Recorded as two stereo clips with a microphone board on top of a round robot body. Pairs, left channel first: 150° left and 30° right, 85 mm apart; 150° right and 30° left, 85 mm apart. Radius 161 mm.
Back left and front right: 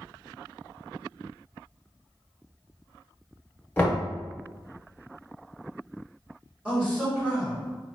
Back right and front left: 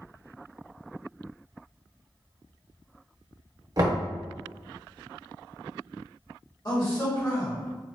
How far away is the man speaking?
About 1.7 m.